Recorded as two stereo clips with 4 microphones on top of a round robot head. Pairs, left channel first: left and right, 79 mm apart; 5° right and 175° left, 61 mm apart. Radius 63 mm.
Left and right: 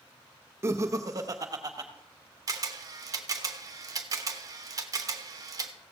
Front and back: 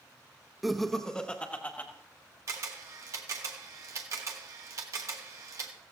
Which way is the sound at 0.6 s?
100° right.